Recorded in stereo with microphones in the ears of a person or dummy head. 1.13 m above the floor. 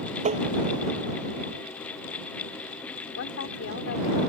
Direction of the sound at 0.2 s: 40° right (ahead or behind).